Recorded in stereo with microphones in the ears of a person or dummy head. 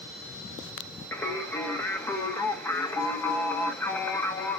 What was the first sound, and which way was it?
Singing, 15° left (ahead or behind).